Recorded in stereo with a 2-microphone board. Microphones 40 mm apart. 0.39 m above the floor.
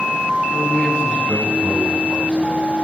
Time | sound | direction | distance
0.5 | a man speaking | 30° left (ahead or behind) | 3.5 m